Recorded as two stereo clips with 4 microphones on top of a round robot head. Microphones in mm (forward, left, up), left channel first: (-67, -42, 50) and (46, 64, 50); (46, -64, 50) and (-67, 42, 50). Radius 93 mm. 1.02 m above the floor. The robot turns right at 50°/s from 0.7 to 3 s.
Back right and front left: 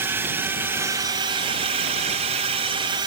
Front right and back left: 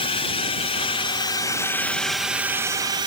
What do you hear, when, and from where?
0.0 s a drone: 25° right; by 3.1 s 90° left